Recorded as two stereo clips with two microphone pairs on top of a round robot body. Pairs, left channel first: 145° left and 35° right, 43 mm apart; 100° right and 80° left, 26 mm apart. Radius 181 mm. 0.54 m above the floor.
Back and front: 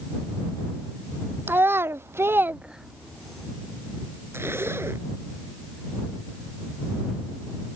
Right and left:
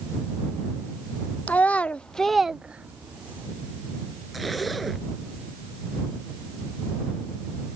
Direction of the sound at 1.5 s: 70° right.